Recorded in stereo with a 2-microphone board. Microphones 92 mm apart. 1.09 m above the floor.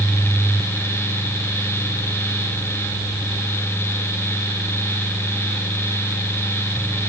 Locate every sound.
Only background noise.